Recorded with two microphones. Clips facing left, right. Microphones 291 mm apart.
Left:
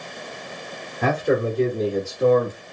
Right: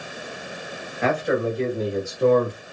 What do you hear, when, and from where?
1.0 s a man speaking: 40° left (ahead or behind), 1.8 m; by 2.6 s centre (ahead or behind), 1.6 m